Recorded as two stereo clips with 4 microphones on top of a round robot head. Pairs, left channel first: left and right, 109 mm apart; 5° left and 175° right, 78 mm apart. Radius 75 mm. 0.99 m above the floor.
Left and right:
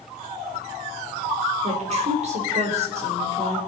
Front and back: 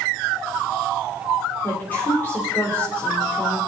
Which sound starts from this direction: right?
A woman speaking, at 1.6 s.